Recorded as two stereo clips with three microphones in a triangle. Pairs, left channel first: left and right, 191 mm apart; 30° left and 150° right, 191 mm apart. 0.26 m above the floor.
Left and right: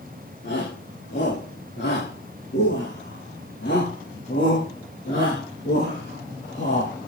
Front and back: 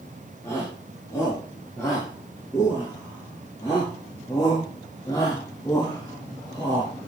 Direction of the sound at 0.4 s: 105° left.